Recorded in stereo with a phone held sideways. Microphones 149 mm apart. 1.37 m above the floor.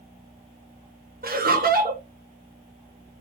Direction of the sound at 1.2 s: 75° right (ahead or behind).